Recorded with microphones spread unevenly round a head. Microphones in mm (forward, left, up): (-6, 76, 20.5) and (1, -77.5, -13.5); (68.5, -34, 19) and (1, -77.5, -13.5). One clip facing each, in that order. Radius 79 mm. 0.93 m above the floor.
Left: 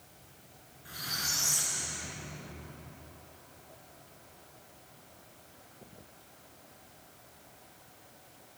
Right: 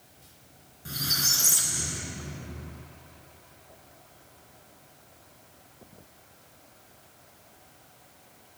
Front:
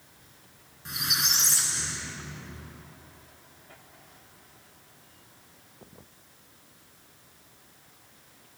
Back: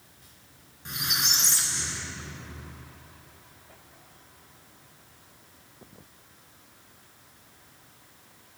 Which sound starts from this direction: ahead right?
A squeak, at 0.8 s.